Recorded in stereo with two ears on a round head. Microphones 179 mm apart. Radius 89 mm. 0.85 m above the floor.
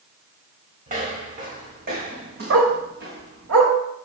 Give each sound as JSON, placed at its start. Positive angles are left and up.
{"t": 0.9, "sound": "footsteps", "side_deg": -40, "distance_m": 4.0}
{"t": 2.5, "sound": "a dog barking", "side_deg": -70, "distance_m": 1.7}